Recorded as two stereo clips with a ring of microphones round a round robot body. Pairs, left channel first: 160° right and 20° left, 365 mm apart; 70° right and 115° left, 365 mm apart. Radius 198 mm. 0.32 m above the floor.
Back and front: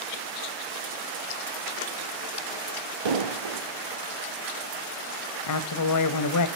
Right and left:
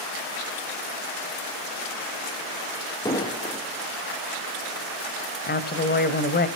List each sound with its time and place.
3.0 s an explosion: 10° left, 2.5 m
5.5 s a woman speaking: 130° right, 1.9 m